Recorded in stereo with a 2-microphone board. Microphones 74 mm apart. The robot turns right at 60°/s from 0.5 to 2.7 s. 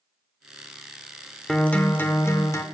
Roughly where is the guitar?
Ahead.